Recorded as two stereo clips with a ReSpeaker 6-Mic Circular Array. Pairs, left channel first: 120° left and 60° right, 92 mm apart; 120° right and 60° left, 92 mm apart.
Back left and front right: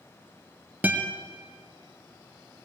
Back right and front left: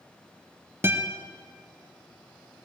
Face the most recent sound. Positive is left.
turn(degrees=5)